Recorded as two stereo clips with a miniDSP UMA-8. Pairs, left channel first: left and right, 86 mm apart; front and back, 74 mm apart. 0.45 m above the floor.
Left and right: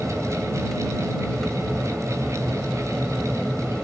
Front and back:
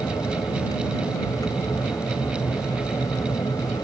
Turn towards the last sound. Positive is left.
turn(degrees=5)